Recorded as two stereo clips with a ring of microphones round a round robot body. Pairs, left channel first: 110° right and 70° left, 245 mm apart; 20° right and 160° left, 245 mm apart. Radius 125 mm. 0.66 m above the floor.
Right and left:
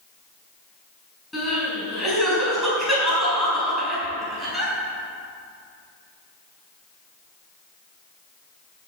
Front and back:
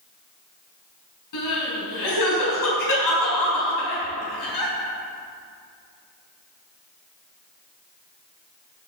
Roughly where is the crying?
Ahead right.